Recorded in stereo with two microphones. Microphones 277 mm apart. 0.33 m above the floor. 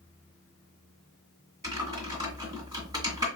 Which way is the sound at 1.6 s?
15° right (ahead or behind).